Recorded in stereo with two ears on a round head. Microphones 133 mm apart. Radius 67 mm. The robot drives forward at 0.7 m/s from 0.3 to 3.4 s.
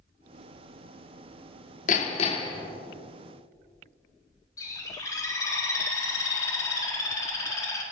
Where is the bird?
25° left (ahead or behind), 1.7 m.